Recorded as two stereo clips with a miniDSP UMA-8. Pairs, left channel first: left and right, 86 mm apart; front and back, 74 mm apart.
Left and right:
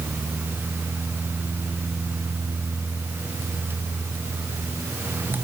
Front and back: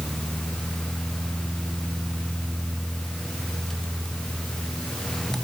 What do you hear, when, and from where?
Only background noise.